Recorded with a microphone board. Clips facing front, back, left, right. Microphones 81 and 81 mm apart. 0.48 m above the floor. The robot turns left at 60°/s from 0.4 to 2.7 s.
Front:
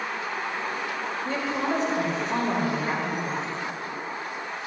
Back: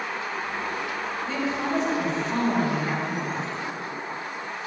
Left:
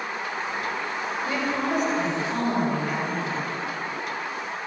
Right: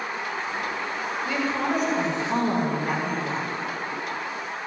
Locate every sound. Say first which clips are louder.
1.2 s a woman speaking: front 1 dB, right 1 dB; 30° left, 1.8 m; by 3.6 s 55° right, 1.8 m